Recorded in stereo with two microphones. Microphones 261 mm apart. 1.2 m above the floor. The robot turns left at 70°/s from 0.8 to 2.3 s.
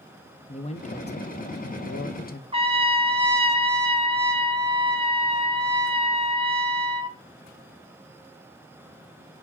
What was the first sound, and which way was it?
A man speaking, 150° left.